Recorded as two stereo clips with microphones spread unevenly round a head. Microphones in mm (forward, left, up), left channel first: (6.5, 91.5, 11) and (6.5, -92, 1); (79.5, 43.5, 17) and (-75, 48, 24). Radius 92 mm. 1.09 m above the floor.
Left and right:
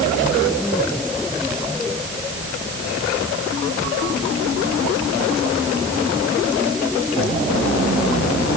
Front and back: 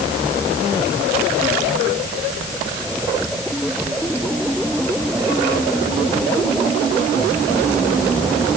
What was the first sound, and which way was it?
Only background noise.